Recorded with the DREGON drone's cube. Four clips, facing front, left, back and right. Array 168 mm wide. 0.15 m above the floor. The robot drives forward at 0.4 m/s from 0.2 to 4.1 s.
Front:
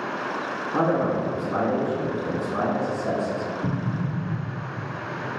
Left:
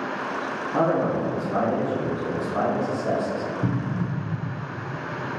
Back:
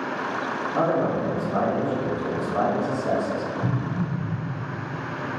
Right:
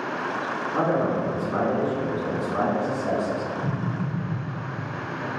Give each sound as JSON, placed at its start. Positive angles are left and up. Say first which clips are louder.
{"t": 0.7, "sound": "a man speaking", "louder": "left 1 dB, front 1 dB", "azimuth_deg": -30, "distance_m": 2.0}
{"t": 3.6, "sound": "an explosion", "louder": "left 2 dB, even", "azimuth_deg": 90, "distance_m": 0.8}